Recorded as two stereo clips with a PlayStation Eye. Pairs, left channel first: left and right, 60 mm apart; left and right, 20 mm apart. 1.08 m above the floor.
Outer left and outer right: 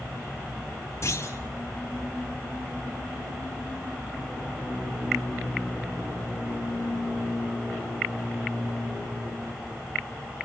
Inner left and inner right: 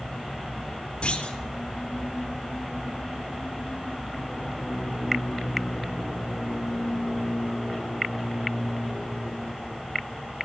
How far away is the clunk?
About 4 m.